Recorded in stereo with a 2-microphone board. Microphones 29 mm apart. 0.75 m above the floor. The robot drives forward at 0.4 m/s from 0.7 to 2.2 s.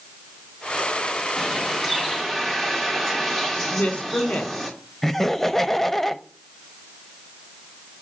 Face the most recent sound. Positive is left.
turn(degrees=10)  # may be behind; listen again after turning